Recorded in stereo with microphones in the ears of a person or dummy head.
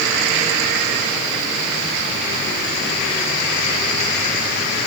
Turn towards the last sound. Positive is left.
No sound to turn to.